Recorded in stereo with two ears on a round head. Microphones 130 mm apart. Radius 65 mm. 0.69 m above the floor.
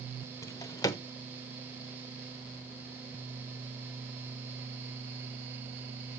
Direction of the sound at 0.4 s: 25° left (ahead or behind).